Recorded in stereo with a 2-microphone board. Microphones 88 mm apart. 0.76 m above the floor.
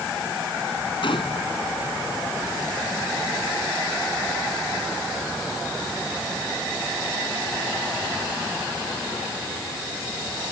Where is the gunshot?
70° left (ahead or behind).